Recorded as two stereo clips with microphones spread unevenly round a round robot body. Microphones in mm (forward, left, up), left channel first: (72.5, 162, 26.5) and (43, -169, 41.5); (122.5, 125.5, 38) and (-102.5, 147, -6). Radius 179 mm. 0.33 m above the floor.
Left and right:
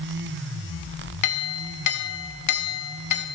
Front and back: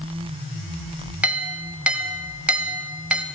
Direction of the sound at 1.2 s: 95° left.